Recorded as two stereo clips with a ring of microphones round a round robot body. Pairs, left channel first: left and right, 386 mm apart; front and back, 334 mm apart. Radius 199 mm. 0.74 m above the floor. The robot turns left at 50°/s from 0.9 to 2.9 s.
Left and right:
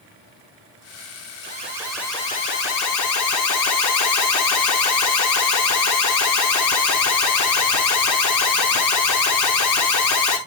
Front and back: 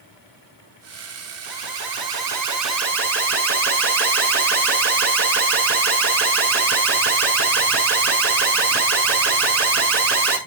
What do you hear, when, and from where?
1.4 s an alarm: 155° right, 4.5 m; by 10.4 s 130° left, 4.5 m